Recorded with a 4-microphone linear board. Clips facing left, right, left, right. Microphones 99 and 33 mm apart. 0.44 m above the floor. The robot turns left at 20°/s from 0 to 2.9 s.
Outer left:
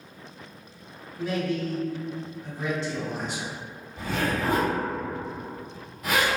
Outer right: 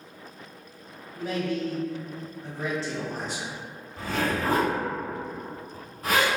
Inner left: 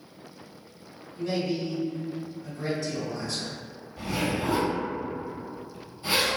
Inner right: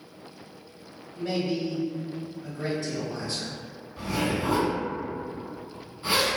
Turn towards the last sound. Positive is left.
turn(degrees=-35)  # may be behind; listen again after turning